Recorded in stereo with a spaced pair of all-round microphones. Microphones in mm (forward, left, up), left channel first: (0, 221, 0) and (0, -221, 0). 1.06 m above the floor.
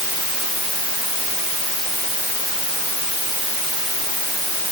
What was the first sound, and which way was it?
Only background noise.